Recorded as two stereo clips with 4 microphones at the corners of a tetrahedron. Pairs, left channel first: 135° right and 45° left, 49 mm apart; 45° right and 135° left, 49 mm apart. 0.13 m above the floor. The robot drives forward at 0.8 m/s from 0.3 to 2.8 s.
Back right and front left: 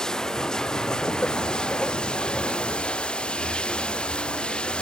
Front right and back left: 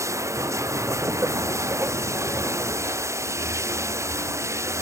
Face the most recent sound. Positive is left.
turn(degrees=155)